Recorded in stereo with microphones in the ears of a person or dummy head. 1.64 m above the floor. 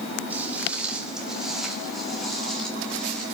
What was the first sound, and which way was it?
Footsteps, 10° right (ahead or behind).